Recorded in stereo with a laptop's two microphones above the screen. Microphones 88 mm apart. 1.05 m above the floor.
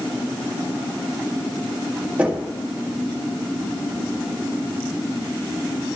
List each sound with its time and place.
2.2 s knocking: 15° right (ahead or behind), 1.9 m